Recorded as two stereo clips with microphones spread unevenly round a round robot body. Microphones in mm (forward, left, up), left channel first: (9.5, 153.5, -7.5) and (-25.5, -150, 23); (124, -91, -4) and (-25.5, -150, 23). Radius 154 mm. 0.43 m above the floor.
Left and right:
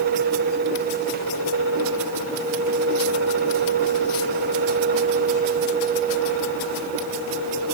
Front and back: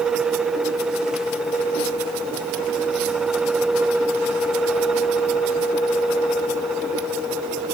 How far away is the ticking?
I don't hear ticking.